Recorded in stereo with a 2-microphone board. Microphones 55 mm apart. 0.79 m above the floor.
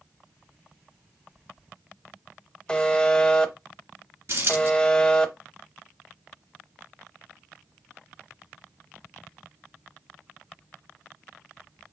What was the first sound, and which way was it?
A buzzer, 20° left (ahead or behind).